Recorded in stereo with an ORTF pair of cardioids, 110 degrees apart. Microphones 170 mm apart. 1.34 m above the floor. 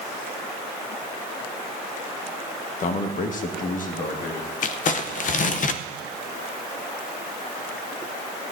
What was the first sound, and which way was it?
A man speaking, 45° left.